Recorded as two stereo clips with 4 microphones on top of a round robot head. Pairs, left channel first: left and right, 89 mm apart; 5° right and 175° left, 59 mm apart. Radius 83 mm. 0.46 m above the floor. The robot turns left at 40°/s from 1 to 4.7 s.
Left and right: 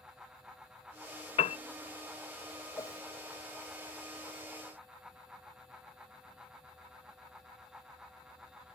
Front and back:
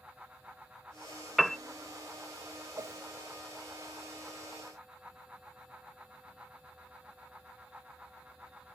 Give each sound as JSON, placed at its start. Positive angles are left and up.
{"t": 1.4, "sound": "a piano", "azimuth_deg": 85}
{"t": 2.8, "sound": "a whoosh", "azimuth_deg": 145}